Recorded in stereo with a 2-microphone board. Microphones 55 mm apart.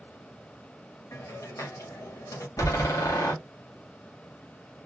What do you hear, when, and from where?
1.1 s a hiss: 70° left (ahead or behind), 1.9 m
2.6 s a door slam: 90° left, 1.6 m